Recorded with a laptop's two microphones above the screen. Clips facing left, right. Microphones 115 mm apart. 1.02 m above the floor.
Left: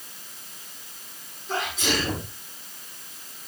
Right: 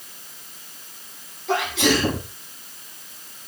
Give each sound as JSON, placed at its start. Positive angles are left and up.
{"t": 1.5, "sound": "a sneeze", "side_deg": -85, "distance_m": 7.5}